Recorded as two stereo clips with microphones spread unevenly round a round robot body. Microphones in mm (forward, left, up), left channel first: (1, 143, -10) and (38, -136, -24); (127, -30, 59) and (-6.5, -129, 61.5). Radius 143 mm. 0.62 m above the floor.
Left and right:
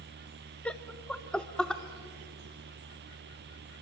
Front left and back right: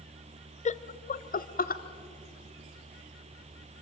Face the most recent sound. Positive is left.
turn(degrees=10)